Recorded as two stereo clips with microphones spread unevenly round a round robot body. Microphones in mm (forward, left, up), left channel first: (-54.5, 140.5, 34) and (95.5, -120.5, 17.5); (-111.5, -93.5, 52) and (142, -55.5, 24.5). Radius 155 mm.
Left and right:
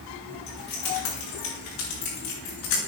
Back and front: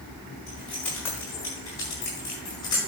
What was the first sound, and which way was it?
Keys jangling, 100° left.